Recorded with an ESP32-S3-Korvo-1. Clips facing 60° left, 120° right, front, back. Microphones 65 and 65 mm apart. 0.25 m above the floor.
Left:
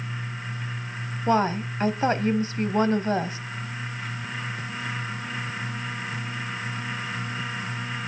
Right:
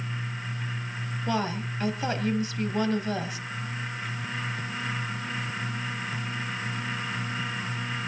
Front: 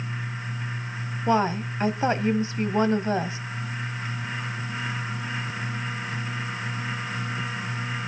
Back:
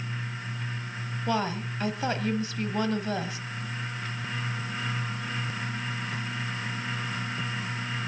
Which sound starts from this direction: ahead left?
A woman speaking, at 1.3 s.